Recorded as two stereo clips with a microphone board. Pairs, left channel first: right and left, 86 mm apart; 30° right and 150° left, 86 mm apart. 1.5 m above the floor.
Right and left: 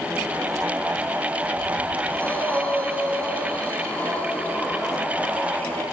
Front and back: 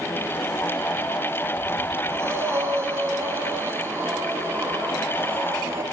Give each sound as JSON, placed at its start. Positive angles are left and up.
{"t": 2.1, "sound": "breathing", "azimuth_deg": -155, "distance_m": 2.5}